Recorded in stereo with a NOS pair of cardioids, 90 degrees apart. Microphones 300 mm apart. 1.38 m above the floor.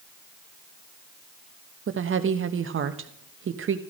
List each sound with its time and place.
1.9 s a woman speaking: 45° right, 1.4 m